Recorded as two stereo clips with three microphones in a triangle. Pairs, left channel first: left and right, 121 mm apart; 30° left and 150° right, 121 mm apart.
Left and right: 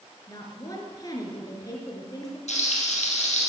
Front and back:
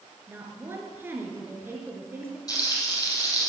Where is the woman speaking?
140° left, 3 m.